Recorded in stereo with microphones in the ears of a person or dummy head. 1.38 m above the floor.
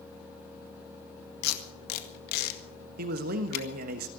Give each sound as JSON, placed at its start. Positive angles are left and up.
{"t": 1.4, "sound": "tape being pulled", "side_deg": 65, "distance_m": 1.8}
{"t": 3.0, "sound": "a man speaking", "side_deg": -60, "distance_m": 1.4}